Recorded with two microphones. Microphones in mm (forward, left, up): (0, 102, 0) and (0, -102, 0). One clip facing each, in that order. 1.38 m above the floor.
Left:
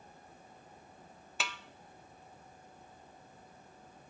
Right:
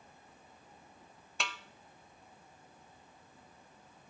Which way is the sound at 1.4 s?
Centre (ahead or behind).